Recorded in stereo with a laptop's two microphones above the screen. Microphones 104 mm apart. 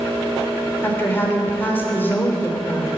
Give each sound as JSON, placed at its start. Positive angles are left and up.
{"t": 0.8, "sound": "a woman speaking", "side_deg": 20, "distance_m": 3.0}